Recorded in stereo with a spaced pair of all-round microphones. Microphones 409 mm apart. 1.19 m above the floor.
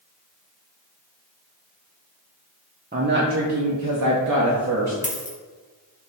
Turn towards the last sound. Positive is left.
turn(degrees=20)  # may be behind; listen again after turning